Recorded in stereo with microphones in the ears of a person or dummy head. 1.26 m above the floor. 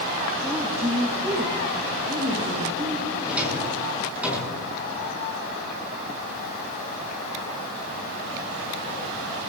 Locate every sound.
0.4 s a woman speaking: 10° right (ahead or behind), 0.9 m; by 3.1 s 30° right (ahead or behind), 3.5 m
3.2 s a drawer: 5° right (ahead or behind), 8 m